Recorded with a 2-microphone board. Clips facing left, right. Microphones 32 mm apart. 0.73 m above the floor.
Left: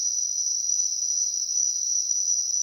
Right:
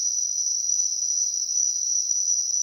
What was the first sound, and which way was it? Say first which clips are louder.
An insect: right 1 dB; 15° left (ahead or behind).